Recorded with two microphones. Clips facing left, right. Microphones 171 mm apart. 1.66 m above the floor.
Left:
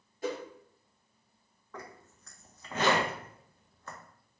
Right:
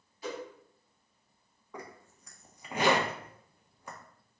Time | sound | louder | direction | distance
0.2 | a whoosh | left 4 dB | 50° left (ahead or behind) | 1.1 m
1.7 | a zipper | right 1 dB | 15° right (ahead or behind) | 0.5 m